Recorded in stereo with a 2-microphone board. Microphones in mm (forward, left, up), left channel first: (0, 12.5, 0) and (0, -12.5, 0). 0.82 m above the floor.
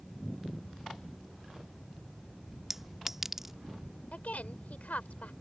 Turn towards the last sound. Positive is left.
turn(degrees=80)